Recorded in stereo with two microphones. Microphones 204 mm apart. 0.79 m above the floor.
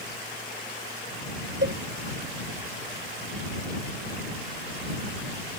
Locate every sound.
1.6 s a cowbell: 65° right (ahead or behind)